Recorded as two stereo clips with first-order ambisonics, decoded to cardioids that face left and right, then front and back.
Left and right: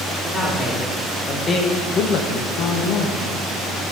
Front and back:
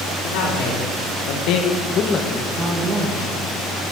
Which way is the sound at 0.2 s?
5° left.